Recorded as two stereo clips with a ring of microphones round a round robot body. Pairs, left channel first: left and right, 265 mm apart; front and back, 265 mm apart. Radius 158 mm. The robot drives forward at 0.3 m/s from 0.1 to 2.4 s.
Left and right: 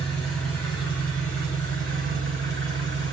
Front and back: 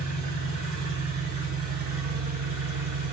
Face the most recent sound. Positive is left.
turn(degrees=175)